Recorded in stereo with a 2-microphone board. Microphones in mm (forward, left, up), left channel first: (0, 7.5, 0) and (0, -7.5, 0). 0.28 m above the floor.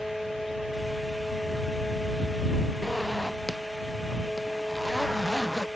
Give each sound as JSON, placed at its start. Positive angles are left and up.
{"t": 2.8, "sound": "a zipper", "side_deg": 10}